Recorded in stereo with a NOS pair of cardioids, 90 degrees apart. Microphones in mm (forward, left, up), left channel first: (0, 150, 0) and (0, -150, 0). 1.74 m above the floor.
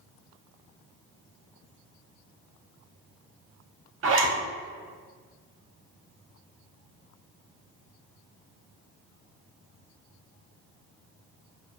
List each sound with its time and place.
4.0 s a zipper: 45° right, 1.0 m